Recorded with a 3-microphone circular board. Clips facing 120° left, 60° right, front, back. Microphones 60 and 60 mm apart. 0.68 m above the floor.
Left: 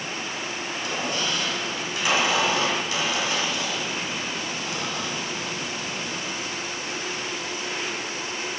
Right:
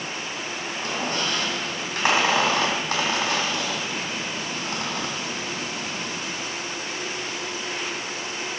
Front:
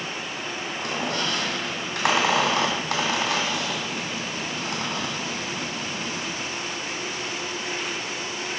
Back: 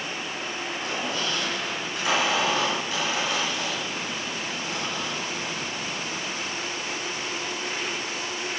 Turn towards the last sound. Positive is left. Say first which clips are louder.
# right 1 dB, front 3 dB
turn(degrees=-20)